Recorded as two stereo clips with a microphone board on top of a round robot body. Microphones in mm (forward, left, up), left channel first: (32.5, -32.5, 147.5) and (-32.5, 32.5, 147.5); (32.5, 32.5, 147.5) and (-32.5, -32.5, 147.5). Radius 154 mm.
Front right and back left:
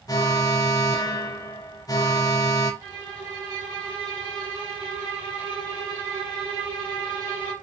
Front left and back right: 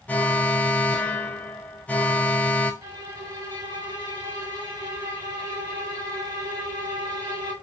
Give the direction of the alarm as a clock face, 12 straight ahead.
1 o'clock.